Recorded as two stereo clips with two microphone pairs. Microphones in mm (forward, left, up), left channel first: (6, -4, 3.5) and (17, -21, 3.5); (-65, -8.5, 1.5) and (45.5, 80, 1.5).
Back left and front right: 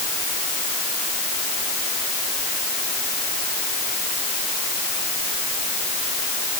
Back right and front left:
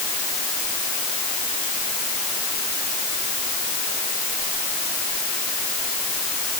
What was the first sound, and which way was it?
Only background noise.